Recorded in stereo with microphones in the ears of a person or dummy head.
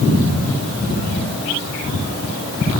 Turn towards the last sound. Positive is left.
No sound to turn to.